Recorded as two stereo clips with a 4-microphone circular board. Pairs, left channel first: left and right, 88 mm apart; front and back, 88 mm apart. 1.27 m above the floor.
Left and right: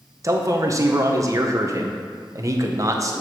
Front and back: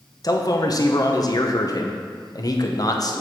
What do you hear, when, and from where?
0.2 s a man speaking: 40° right, 0.9 m